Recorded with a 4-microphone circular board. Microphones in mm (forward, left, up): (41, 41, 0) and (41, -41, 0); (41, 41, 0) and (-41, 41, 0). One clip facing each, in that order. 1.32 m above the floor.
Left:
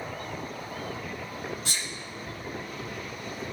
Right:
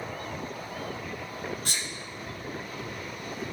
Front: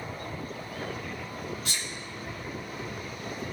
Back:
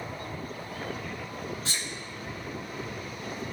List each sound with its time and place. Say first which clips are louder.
1.6 s a sneeze: even, even; 125° right, 1.4 m